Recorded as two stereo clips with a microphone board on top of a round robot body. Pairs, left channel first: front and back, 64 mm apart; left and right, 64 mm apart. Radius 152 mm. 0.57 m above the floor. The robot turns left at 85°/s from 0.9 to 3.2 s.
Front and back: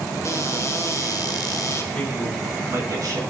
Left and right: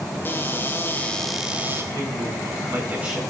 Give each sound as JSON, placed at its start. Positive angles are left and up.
{"t": 0.2, "sound": "a cupboard door", "azimuth_deg": 35, "distance_m": 2.5}
{"t": 1.9, "sound": "a man speaking", "azimuth_deg": -70, "distance_m": 7.5}